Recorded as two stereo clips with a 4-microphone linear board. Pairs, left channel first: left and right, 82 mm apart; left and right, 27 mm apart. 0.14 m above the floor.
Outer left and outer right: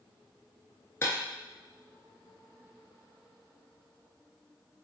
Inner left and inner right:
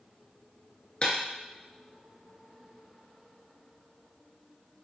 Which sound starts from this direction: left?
Breaking glass, at 1.0 s.